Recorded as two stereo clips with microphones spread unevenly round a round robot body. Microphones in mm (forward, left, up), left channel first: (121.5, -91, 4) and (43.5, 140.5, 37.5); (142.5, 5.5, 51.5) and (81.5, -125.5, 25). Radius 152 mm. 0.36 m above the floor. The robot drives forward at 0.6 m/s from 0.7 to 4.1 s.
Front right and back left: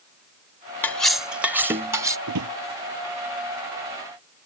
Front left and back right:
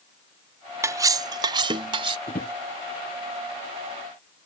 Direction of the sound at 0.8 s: 135° right.